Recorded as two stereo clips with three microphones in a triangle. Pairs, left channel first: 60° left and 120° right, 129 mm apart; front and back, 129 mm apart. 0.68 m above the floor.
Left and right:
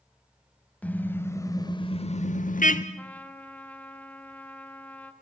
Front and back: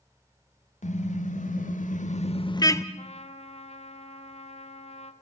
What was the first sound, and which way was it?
A car horn, 20° right.